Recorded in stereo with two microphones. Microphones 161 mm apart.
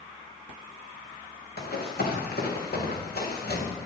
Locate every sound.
1.6 s running footsteps: 85° left, 4 m; by 3.7 s 80° left, 3.5 m